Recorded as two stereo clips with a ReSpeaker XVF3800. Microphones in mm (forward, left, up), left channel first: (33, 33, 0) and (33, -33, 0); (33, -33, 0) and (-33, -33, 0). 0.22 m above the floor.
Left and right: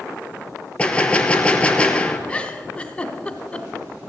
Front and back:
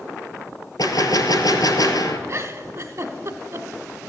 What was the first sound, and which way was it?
A gunshot, 15° left.